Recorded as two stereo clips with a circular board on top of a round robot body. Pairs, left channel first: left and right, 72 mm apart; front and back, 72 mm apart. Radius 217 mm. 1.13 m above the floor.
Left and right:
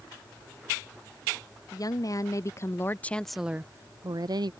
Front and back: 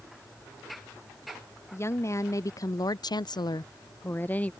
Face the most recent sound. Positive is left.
turn(degrees=-70)